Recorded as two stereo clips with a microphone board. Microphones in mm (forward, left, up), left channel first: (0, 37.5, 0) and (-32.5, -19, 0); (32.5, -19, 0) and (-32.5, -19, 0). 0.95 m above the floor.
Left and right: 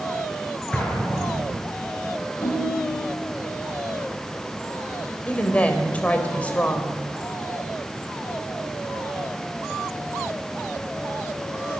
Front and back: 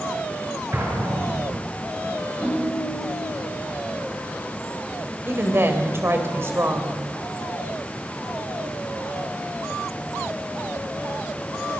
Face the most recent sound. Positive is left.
turn(degrees=130)